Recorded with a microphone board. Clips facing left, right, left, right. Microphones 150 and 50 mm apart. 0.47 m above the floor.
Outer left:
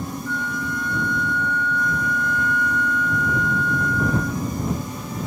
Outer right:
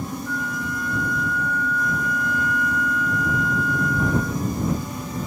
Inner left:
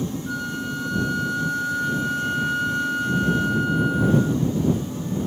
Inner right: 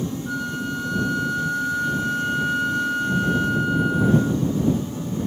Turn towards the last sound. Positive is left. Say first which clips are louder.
# outer left 1 dB, inner right 1 dB
turn(degrees=-5)  # may be behind; listen again after turning